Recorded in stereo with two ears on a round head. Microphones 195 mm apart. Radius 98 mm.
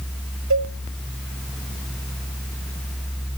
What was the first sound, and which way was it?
A cowbell, 65° right (ahead or behind).